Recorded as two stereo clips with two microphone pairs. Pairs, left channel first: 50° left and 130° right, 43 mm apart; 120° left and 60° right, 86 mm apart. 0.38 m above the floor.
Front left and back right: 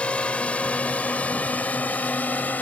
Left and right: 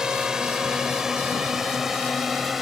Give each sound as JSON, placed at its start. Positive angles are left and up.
{"t": 0.0, "sound": "a drone", "azimuth_deg": 15}